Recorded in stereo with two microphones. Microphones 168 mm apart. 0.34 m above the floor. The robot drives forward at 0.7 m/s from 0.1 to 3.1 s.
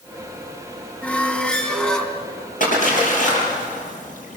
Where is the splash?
55° left (ahead or behind), 6.5 m; by 4.4 s 50° left (ahead or behind), 6.5 m.